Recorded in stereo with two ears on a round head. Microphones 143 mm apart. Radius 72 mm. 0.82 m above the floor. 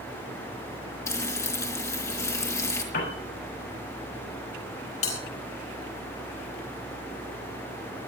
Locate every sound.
1.1 s frying: 20° left (ahead or behind), 3.5 m
2.9 s a piano: 60° left (ahead or behind), 7 m
5.0 s a bell: 45° left (ahead or behind), 4.5 m